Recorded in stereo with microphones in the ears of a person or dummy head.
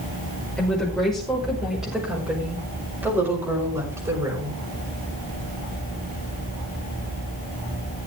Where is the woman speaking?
5° left (ahead or behind), 5 m; by 4.5 s 15° right (ahead or behind), 6 m.